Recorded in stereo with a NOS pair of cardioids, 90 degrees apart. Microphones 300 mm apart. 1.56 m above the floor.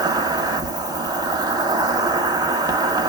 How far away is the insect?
About 0.9 m.